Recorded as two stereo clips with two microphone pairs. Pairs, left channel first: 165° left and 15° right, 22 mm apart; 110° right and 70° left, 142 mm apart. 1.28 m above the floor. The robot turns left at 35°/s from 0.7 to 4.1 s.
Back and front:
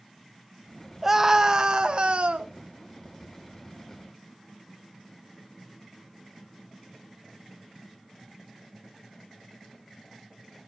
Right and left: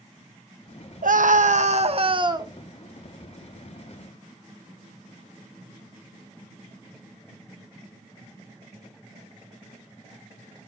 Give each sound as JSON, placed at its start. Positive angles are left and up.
{"t": 1.0, "sound": "a scream", "azimuth_deg": 60, "distance_m": 0.7}